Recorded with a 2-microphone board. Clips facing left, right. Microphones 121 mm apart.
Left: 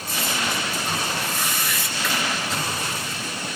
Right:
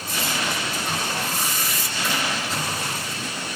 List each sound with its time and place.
1.1 s a whoosh: 40° right (ahead or behind), 2 m